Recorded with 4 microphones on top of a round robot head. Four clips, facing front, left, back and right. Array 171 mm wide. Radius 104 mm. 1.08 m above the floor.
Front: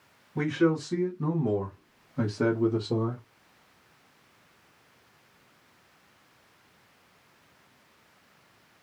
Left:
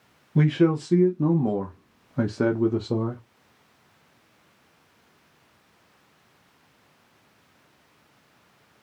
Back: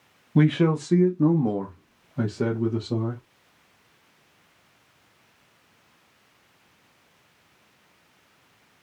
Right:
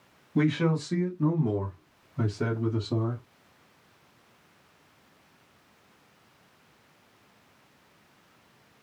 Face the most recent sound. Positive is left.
turn(degrees=75)